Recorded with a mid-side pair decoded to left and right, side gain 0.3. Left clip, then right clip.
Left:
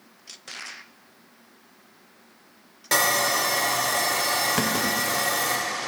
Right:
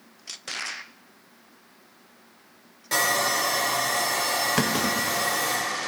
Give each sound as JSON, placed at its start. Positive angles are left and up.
{"t": 2.9, "sound": "sawing", "azimuth_deg": 70, "distance_m": 1.8}
{"t": 4.6, "sound": "a clunk", "azimuth_deg": -20, "distance_m": 0.7}